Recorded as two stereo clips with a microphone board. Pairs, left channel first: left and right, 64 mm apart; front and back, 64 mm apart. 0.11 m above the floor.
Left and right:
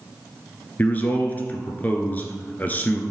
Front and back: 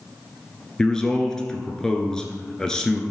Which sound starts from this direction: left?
A man speaking, at 0.8 s.